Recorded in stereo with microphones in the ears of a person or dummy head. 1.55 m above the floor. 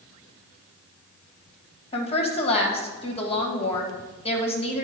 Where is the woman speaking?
40° left (ahead or behind), 1.9 m.